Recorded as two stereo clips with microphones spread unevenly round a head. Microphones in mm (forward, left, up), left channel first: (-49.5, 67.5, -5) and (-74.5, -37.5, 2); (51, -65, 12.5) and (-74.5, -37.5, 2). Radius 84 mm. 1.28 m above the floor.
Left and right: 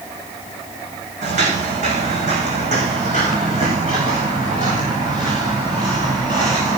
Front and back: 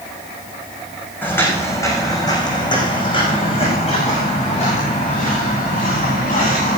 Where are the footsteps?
85° right, 6 m; by 6.8 s 25° right, 10 m.